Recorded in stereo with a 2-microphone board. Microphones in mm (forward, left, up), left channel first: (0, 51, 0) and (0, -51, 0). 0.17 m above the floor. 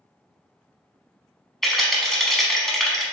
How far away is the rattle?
About 0.7 m.